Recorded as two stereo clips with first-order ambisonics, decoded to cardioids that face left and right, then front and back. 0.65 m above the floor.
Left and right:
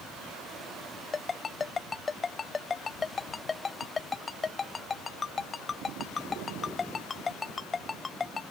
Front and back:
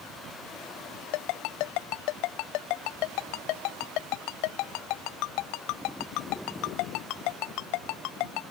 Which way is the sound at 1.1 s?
15° left.